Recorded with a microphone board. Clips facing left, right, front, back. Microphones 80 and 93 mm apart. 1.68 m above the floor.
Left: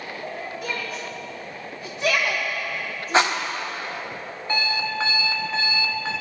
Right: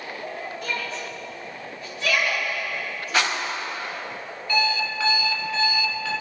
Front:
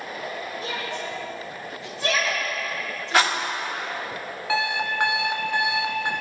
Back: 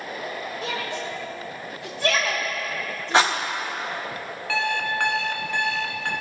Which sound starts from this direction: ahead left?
An alarm clock, at 4.5 s.